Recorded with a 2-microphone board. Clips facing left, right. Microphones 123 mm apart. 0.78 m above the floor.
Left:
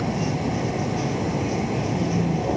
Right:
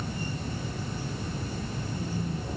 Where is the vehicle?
85° left.